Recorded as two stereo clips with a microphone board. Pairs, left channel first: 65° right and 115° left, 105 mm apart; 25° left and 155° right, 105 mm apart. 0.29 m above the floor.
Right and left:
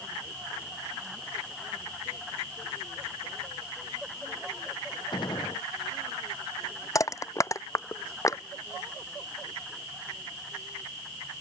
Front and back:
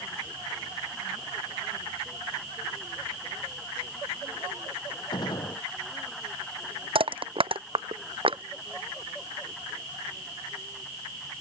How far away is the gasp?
I don't hear a gasp.